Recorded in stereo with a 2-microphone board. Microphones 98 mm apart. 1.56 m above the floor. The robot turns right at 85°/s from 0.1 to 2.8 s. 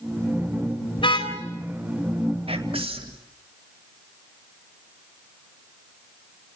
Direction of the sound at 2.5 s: 75° right (ahead or behind).